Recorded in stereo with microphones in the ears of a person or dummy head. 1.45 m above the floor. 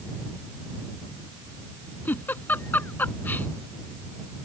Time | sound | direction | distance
2.0 | a giggle | 15° left (ahead or behind) | ?